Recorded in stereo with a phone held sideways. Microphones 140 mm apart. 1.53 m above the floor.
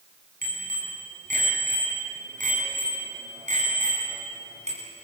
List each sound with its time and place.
0.4 s a bicycle bell: 80° right, 9 m; by 4.8 s 50° right (ahead or behind), 9 m